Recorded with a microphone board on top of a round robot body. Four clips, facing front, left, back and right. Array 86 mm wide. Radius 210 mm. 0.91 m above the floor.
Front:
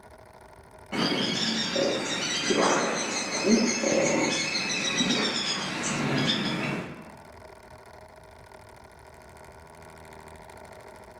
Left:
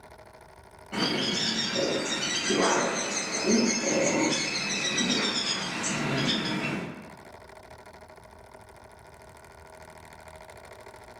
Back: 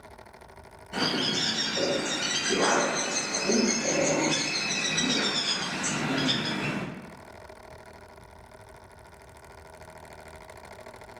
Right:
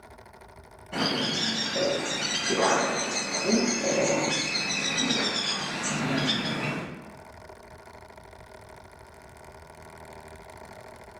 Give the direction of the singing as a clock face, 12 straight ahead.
No singing in this recording.